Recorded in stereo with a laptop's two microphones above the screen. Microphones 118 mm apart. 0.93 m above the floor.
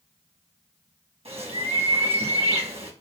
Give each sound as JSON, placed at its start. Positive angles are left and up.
{"t": 1.2, "sound": "a bird", "side_deg": -60, "distance_m": 1.1}